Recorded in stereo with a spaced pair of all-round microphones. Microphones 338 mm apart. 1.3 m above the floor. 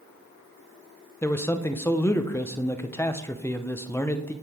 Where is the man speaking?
10° left (ahead or behind), 0.6 m.